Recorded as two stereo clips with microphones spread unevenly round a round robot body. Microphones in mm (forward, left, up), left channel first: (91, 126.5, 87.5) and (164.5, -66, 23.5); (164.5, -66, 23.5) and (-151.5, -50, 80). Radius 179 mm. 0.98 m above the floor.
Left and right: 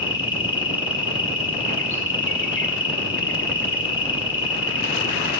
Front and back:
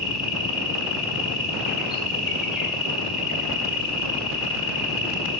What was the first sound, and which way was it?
An insect, 85° left.